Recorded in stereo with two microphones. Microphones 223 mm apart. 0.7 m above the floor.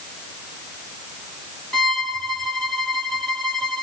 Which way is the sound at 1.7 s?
Centre (ahead or behind).